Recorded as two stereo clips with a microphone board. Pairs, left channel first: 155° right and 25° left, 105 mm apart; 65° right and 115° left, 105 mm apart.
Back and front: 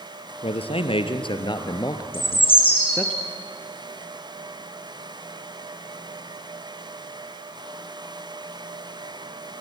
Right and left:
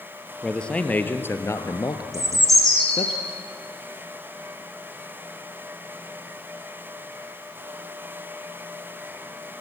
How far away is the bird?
About 8.5 m.